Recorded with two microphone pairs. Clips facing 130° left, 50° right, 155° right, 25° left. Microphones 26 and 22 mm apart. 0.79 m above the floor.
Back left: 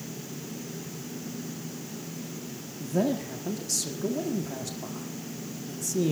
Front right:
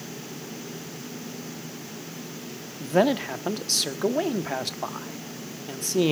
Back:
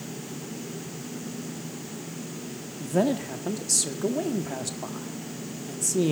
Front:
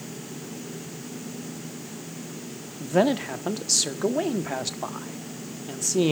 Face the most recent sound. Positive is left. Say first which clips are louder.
# front right 6 dB, front 3 dB
turn(degrees=-35)